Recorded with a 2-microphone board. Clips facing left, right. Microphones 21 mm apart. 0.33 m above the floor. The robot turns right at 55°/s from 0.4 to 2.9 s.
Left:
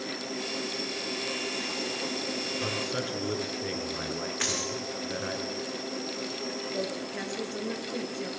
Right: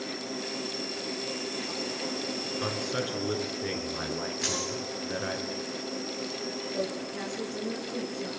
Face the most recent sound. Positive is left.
turn(degrees=20)  # may be behind; listen again after turning